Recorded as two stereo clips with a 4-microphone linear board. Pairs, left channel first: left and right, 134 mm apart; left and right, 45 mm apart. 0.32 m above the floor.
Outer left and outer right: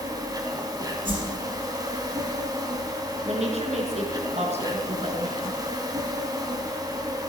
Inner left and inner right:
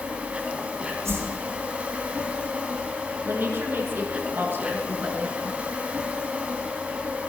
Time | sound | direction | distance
0.0 | an insect | 25° right (ahead or behind) | 2.5 m
1.1 | a whoosh | 90° right | 7 m
3.2 | a woman speaking | 55° right (ahead or behind) | 4 m